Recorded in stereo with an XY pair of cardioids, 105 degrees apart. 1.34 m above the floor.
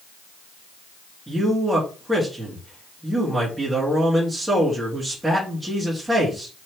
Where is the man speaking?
10° right, 2.5 m.